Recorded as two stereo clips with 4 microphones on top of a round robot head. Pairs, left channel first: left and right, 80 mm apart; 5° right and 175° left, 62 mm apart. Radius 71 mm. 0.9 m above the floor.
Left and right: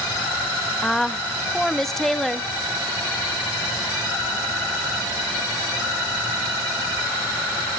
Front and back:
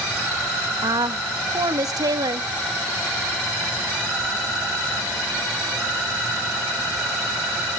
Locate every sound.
0.8 s a woman speaking: 175° left, 1.0 m